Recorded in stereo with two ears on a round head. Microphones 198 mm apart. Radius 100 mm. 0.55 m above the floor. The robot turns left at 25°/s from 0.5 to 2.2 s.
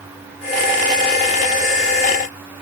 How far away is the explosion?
No explosion in this recording.